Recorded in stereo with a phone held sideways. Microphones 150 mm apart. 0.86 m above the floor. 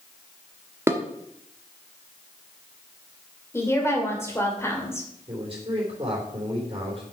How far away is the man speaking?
About 3.5 m.